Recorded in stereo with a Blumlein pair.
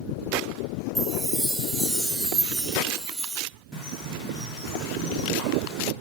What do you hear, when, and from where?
0.9 s a chime: 10° right, 0.7 m
3.7 s a bird: straight ahead, 3 m